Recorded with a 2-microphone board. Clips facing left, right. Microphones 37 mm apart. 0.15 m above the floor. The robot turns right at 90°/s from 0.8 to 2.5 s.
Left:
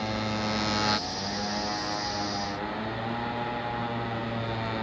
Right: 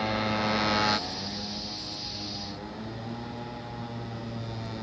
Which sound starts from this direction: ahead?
A motorcycle, at 0.0 s.